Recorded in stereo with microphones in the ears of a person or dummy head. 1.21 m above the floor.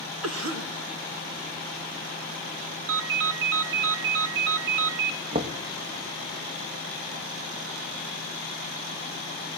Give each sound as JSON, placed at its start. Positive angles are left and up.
{"t": 0.2, "sound": "a cough", "side_deg": -70, "distance_m": 2.0}
{"t": 2.9, "sound": "a ringtone", "side_deg": -70, "distance_m": 0.7}
{"t": 5.3, "sound": "knocking", "side_deg": -30, "distance_m": 1.3}